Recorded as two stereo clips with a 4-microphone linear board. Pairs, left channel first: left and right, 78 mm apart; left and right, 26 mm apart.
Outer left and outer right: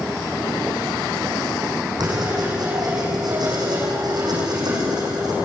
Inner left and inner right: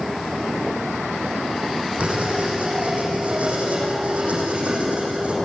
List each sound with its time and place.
2.0 s writing: 60° right (ahead or behind), 8.5 m